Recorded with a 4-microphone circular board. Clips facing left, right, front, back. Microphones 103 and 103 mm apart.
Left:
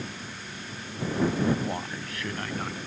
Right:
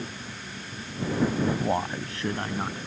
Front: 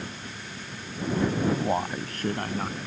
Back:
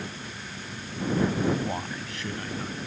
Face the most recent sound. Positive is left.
turn(degrees=-25)